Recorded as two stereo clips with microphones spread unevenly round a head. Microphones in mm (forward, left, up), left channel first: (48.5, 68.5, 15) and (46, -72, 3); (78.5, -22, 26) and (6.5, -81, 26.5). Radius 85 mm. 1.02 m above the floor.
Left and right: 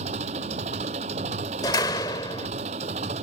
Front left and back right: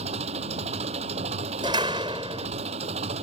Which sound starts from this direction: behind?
A door slam, at 1.6 s.